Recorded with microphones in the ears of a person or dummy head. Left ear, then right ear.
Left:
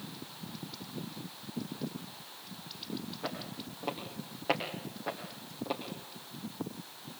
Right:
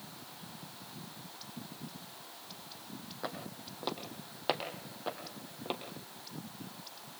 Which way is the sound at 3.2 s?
55° right (ahead or behind).